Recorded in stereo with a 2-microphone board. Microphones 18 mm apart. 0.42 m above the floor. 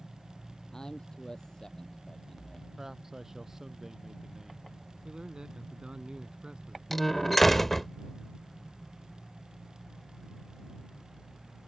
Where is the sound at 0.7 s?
40° left (ahead or behind).